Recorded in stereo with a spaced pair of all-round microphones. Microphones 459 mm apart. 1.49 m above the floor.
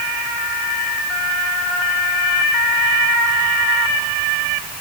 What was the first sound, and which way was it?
Only background noise.